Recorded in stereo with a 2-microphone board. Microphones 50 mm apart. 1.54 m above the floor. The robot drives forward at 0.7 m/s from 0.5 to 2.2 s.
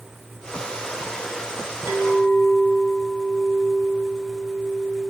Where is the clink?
70° right (ahead or behind), 5.5 m; by 5.1 s 75° right (ahead or behind), 5 m.